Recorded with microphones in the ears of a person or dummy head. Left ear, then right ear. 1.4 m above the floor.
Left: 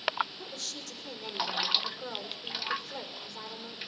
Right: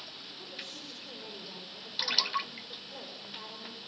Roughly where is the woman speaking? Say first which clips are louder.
Left 4 dB; left.